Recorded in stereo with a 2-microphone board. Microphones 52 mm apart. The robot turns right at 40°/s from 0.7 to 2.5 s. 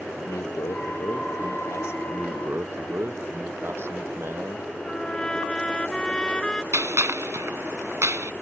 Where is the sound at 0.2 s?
75° left; by 2.0 s 125° left.